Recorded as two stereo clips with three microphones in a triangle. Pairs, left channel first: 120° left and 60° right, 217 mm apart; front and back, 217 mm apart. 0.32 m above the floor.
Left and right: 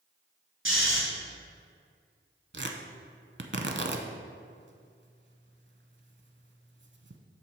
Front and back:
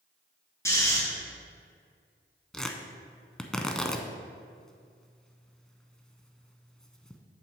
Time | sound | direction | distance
0.7 | snoring | 75° right | 2.5 m
2.5 | tearing paper | 85° right | 0.6 m